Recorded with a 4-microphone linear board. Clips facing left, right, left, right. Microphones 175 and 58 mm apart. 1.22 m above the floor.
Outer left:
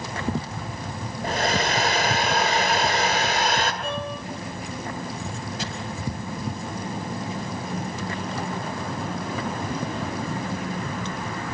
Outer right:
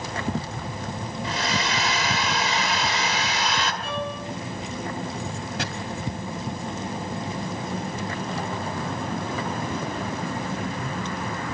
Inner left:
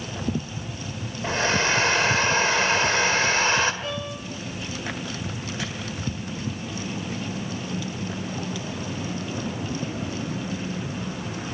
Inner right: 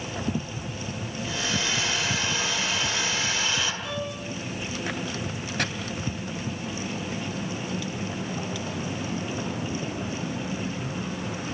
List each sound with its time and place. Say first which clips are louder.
1.2 s a hair dryer: outer left 5 dB, inner left 7 dB; 50° left (ahead or behind), 2 m
3.8 s a violin: even, inner left 1 dB; 55° left (ahead or behind), 8 m
5.6 s chopping: outer right 2 dB, inner right 5 dB; 70° right (ahead or behind), 2.5 m